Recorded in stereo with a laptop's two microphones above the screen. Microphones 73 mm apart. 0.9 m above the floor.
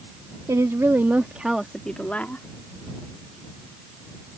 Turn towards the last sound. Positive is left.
turn(degrees=30)  # may be behind; listen again after turning